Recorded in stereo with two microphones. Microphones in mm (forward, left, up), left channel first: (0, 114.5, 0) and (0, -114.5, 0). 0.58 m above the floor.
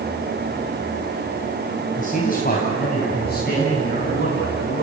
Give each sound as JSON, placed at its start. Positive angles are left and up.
{"t": 2.0, "sound": "a man speaking", "side_deg": 35, "distance_m": 3.5}